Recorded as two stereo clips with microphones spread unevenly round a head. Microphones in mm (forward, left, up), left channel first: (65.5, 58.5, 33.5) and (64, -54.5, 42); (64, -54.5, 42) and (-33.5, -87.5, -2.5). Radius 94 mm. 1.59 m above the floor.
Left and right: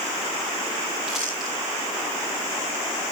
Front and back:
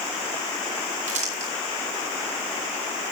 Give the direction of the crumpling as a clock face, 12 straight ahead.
6 o'clock.